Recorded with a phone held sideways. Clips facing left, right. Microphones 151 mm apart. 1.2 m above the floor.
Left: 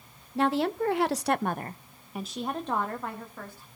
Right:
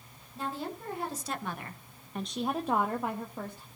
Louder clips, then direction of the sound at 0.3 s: Left 11 dB; 70° left (ahead or behind).